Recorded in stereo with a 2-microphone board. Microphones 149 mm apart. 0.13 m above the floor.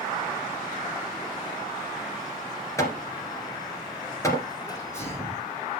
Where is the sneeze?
20° left (ahead or behind), 5.5 m.